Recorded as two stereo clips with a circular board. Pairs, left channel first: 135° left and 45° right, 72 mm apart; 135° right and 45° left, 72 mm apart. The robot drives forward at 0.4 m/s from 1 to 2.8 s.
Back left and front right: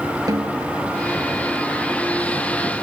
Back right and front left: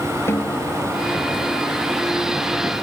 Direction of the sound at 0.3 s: 80° right.